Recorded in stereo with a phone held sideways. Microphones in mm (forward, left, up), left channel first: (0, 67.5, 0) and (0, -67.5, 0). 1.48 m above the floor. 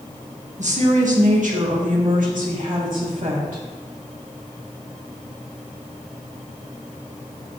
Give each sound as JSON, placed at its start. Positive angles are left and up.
{"t": 0.6, "sound": "a woman speaking", "side_deg": -60, "distance_m": 1.9}